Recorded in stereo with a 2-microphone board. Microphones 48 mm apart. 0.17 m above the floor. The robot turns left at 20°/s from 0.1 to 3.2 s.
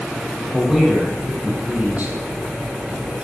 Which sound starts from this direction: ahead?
A man speaking, at 0.5 s.